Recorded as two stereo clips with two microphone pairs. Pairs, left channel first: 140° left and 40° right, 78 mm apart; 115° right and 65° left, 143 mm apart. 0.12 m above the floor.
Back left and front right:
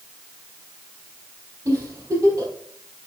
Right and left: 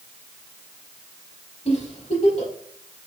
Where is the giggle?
80° right, 4 m.